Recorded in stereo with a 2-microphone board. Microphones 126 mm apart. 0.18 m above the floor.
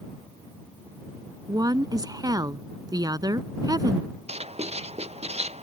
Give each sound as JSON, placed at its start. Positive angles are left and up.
{"t": 1.5, "sound": "a woman speaking", "side_deg": -30}
{"t": 4.3, "sound": "writing", "side_deg": -55}